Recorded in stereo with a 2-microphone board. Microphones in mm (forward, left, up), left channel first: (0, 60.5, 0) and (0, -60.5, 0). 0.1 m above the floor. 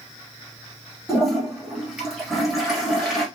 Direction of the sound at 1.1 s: 5° right (ahead or behind).